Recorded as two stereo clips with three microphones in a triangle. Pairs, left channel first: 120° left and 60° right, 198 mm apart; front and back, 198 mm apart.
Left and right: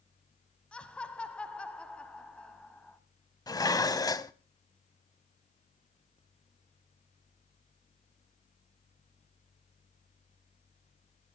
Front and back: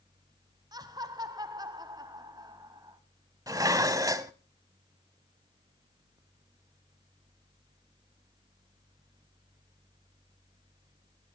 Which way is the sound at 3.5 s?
145° left.